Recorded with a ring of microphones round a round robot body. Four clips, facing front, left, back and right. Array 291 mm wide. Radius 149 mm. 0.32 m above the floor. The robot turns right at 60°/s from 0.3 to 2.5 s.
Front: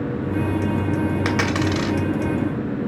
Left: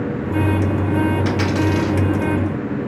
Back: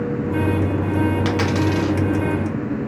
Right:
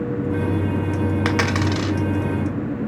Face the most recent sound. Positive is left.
turn(degrees=-5)